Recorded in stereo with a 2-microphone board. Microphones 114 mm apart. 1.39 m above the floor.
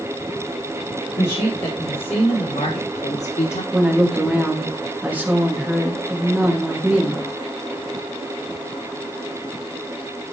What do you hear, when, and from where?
1.2 s a woman speaking: 50° left (ahead or behind), 5 m; by 3.6 s 90° left, 4 m
3.7 s a woman speaking: 15° right (ahead or behind), 2 m